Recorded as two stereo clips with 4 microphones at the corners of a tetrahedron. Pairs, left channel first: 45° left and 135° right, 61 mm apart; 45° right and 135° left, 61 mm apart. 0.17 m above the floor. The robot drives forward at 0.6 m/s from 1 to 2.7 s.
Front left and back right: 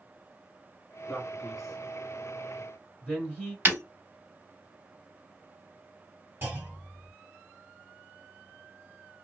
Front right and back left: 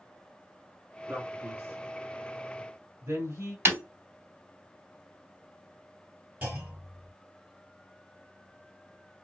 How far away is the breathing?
No breathing in this recording.